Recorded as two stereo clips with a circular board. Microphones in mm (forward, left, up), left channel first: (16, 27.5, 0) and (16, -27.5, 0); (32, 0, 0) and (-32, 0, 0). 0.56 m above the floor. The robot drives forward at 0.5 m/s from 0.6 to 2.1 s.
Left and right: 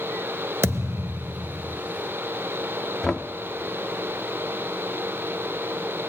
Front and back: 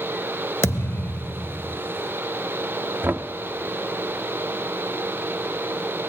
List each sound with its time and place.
0.6 s a thud: 45° right, 0.7 m; by 1.8 s 100° right, 0.6 m
3.0 s knocking: 160° left, 0.6 m